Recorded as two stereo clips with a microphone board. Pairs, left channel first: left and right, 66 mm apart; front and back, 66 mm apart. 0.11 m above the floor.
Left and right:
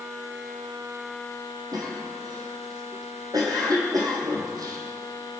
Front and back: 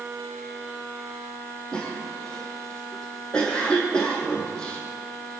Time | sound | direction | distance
1.7 | a cough | 75° right | 4 m